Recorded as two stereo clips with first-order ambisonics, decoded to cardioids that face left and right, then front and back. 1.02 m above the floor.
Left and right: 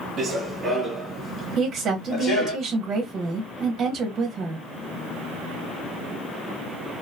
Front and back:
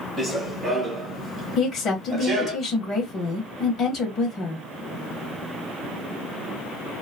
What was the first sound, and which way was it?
Running footsteps, 75° right.